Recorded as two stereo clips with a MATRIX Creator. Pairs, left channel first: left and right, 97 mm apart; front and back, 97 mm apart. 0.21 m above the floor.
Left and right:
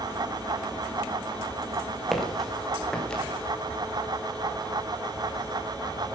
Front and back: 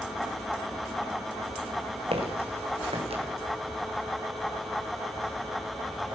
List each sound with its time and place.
2.1 s footsteps: straight behind, 4 m; by 3.2 s 170° left, 4.5 m